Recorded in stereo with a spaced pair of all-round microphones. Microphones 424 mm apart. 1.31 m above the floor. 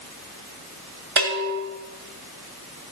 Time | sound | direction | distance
1.2 | a bell | 60° right (ahead or behind) | 1.6 m